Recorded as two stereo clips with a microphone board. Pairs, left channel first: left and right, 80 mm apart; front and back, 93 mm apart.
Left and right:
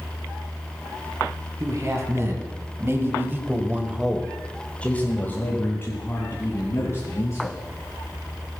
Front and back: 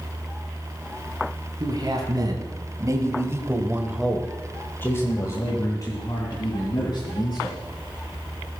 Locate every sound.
1.6 s a man speaking: 140° right, 3 m; by 7.6 s 35° left, 4 m